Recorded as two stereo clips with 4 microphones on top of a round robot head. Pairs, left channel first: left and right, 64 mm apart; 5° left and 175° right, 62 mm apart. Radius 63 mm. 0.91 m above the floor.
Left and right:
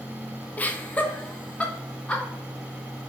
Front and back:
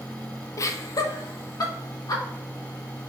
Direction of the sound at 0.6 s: 30° left.